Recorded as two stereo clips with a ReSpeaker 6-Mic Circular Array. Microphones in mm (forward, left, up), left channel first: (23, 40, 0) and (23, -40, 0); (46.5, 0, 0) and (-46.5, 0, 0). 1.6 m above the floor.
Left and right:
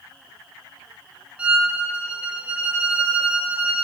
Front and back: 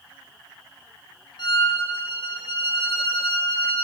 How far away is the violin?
About 0.6 m.